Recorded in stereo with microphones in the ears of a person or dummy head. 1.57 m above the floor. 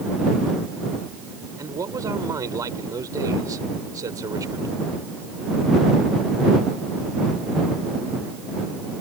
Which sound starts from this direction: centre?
A man speaking, at 1.6 s.